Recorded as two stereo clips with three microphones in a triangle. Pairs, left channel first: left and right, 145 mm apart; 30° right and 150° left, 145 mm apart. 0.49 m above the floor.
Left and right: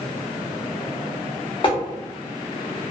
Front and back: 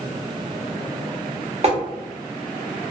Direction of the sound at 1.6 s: 130° left.